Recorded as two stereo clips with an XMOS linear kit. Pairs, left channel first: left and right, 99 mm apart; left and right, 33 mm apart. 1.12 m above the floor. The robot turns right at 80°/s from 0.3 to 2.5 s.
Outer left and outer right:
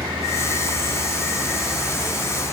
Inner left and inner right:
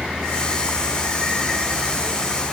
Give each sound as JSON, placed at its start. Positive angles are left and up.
{"t": 0.0, "sound": "a vehicle", "azimuth_deg": -125}